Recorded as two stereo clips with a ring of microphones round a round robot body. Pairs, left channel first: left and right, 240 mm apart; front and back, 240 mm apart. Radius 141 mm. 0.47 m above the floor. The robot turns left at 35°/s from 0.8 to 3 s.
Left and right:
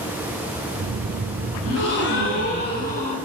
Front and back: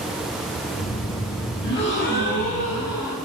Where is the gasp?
60° left, 5 m; by 3.1 s 10° left, 5 m.